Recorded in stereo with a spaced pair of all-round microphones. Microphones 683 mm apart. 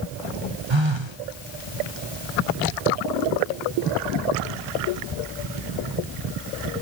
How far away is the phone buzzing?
About 0.9 m.